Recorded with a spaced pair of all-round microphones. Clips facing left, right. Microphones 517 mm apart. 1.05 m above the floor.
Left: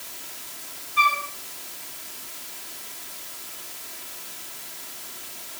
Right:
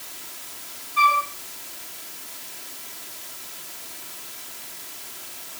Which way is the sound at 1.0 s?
60° right (ahead or behind).